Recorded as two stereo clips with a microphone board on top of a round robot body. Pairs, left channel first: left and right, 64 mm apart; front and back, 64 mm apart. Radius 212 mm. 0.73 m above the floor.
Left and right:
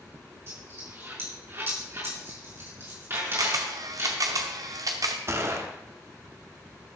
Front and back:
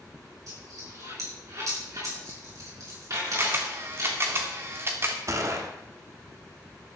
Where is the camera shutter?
125° right, 0.7 m.